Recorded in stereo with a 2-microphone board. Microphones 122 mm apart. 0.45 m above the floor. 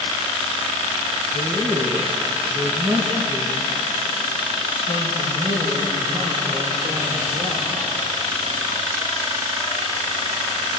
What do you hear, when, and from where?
1.3 s a man speaking: 35° right (ahead or behind), 4.5 m; by 7.7 s 75° right (ahead or behind), 8.5 m